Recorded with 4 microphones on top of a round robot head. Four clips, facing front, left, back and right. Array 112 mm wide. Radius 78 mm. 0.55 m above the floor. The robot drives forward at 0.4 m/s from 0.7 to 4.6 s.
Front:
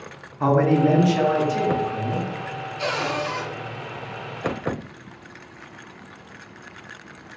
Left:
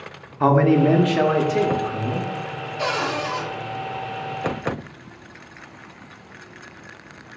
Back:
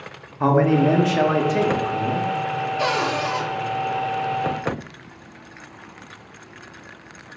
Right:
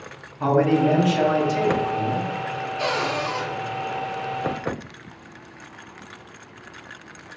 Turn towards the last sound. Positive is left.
turn(degrees=175)